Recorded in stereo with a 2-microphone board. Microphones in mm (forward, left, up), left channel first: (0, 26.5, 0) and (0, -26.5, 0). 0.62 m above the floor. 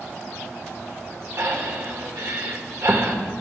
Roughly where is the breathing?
Right.